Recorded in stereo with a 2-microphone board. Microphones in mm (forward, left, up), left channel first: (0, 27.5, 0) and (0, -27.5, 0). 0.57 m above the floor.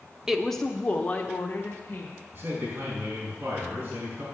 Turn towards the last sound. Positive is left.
turn(degrees=-35)  # may be behind; listen again after turning